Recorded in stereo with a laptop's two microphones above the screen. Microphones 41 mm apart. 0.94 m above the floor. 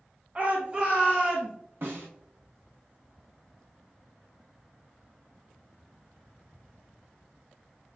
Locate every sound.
0.3 s a shout: 40° right (ahead or behind), 0.8 m; by 1.5 s centre (ahead or behind), 1.3 m
1.8 s a snare drum: 65° right (ahead or behind), 1.1 m